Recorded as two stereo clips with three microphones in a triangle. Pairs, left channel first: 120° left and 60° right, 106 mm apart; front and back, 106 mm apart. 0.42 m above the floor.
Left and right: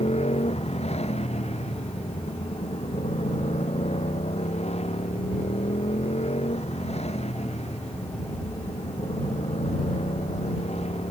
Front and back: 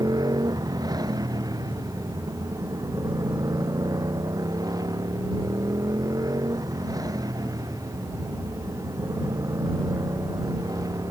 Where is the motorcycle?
125° left.